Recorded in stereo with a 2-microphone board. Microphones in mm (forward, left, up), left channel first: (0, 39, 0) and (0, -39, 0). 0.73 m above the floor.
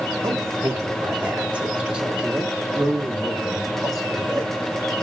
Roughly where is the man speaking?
Right.